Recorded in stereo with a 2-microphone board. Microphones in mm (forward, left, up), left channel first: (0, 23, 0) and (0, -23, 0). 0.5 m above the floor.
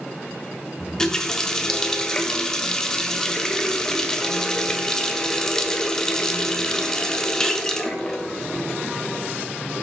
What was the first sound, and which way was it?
A running tap, 10° left (ahead or behind).